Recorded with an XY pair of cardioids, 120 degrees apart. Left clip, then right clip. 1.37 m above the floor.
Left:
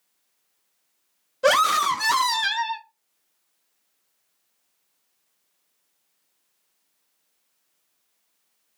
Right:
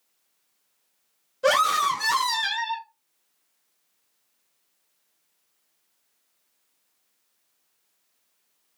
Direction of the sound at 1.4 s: 25° left.